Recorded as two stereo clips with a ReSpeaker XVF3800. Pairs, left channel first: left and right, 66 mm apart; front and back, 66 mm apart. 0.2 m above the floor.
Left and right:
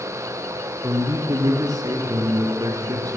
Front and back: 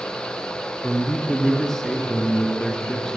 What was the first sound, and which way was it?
A man speaking, 80° right.